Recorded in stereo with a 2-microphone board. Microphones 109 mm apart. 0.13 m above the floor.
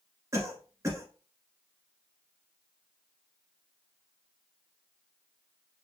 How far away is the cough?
About 1.6 m.